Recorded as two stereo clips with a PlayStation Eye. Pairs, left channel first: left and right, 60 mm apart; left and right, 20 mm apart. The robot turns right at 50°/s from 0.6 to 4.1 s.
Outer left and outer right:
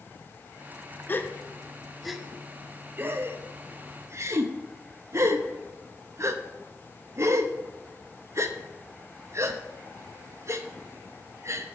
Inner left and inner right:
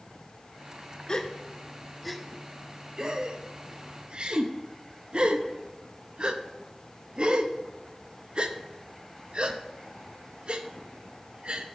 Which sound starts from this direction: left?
A gasp, at 1.1 s.